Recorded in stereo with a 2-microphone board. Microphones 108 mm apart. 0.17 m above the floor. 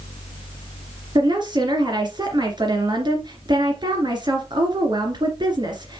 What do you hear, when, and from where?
1.1 s a woman speaking: 45° right (ahead or behind), 2.5 m